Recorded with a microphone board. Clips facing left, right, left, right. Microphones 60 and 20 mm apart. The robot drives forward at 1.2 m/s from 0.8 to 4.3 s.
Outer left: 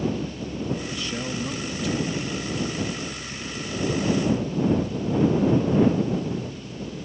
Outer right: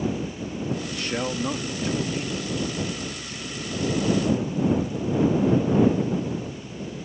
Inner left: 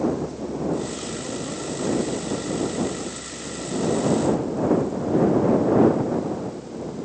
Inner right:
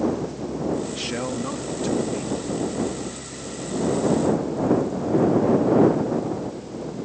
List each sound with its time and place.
0.9 s a man speaking: 65° right (ahead or behind); by 2.4 s 30° right (ahead or behind)